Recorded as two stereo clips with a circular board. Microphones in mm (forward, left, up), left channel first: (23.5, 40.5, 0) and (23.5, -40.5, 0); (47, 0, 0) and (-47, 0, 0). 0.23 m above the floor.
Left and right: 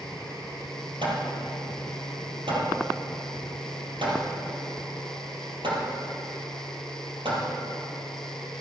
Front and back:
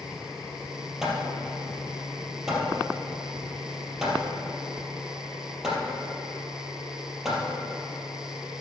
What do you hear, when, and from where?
1.0 s hammering: 95° right, 3 m